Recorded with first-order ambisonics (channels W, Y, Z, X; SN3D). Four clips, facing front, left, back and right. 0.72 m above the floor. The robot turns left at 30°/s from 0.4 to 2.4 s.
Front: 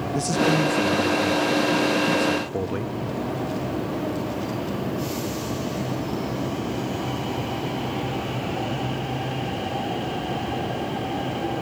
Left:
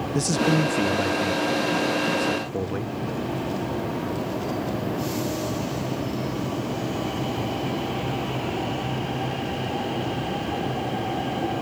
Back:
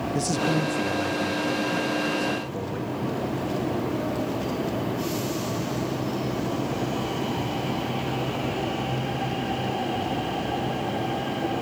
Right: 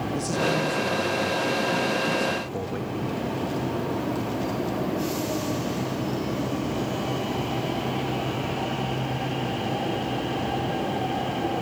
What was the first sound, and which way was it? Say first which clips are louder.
A man speaking: left 4 dB, front 4 dB; 85° left.